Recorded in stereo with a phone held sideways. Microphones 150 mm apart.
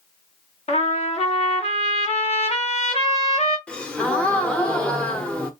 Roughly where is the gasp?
Centre.